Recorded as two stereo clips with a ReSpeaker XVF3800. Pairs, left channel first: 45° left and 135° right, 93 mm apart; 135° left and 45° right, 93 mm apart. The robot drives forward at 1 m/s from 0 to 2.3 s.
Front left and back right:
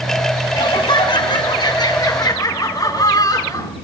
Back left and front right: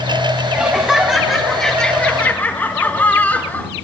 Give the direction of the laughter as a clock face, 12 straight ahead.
11 o'clock.